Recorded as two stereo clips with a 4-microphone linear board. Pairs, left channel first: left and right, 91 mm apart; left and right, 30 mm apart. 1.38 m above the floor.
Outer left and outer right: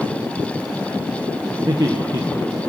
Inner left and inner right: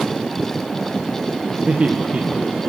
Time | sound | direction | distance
1.7 | laughter | 50° right (ahead or behind) | 1.3 m